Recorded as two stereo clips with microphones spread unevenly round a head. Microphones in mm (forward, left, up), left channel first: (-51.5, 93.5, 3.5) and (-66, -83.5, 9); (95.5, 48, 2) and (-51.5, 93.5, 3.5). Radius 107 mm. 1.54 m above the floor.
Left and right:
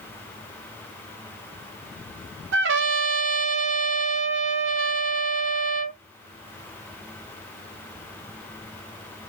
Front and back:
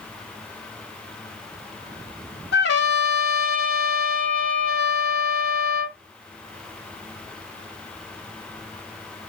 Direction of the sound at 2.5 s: 55° right.